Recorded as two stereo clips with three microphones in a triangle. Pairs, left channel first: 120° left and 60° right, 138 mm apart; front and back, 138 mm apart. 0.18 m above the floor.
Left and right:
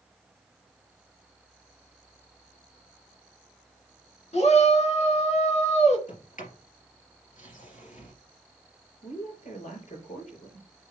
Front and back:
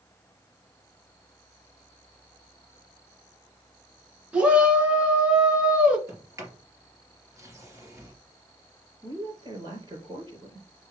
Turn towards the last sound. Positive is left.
turn(degrees=125)